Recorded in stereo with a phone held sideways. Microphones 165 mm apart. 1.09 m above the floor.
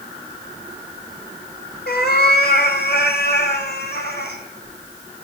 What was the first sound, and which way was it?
A cat meowing, 75° left (ahead or behind).